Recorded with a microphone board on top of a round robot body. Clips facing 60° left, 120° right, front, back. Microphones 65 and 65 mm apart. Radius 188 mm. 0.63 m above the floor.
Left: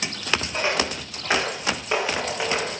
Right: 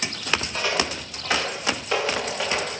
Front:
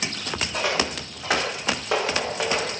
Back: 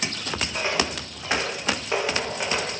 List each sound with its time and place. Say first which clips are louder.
0.5 s footsteps: left 1 dB, front 2 dB; 5° right, 8.5 m; by 2.7 s 20° right, 9 m